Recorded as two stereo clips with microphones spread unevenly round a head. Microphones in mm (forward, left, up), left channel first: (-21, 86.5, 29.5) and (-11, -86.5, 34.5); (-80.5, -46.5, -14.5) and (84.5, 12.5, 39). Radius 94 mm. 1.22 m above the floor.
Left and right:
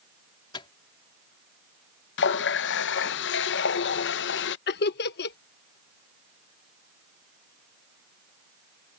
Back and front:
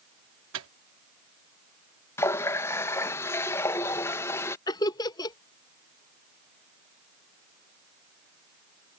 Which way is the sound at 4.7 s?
125° left.